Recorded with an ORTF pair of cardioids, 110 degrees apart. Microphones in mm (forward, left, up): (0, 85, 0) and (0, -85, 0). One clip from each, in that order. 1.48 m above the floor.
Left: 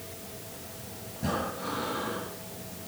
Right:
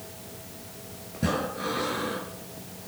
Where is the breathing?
55° right, 5 m.